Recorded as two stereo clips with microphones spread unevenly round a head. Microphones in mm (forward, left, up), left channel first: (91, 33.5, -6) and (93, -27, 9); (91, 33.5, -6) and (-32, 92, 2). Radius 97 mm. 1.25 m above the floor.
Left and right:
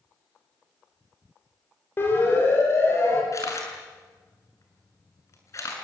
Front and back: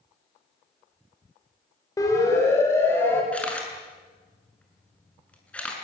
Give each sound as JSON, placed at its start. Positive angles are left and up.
{"t": 2.0, "sound": "a siren", "azimuth_deg": 40, "distance_m": 7.5}
{"t": 3.3, "sound": "a camera shutter", "azimuth_deg": 55, "distance_m": 7.0}